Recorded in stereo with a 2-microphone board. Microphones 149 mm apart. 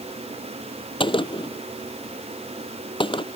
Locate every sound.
1.0 s a gunshot: 35° left (ahead or behind)